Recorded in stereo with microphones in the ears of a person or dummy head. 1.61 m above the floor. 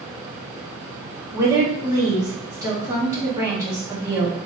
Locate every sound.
1.3 s a woman speaking: 15° right (ahead or behind), 1.0 m